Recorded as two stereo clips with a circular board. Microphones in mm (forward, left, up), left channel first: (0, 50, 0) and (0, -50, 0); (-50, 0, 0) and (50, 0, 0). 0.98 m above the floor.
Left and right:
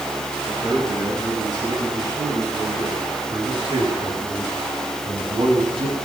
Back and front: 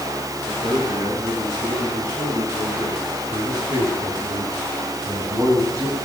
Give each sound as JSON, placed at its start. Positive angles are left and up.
{"t": 0.5, "sound": "a man speaking", "azimuth_deg": -45, "distance_m": 10.0}